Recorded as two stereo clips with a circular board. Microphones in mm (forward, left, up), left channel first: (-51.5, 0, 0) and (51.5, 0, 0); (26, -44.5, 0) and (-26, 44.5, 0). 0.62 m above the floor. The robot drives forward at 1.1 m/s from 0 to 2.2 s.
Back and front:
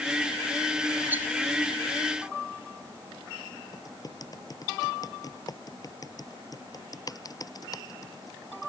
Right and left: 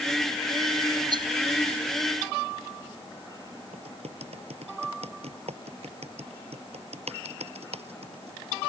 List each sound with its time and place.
1.1 s a rattle: 75° left
3.7 s typing on a keyboard: 130° left